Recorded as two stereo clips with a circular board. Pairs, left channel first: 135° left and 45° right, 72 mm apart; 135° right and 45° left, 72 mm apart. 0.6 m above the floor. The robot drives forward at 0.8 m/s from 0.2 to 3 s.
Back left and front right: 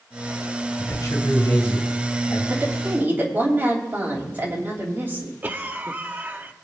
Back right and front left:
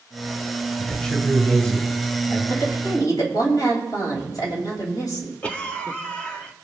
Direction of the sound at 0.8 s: 150° left.